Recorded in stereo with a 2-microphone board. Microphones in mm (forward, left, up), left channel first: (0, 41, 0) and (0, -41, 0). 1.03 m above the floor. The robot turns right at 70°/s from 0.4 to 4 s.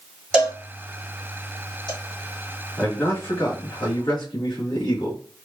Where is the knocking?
I don't hear knocking.